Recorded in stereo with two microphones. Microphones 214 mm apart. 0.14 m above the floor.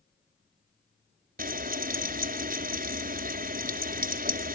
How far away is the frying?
About 1.7 m.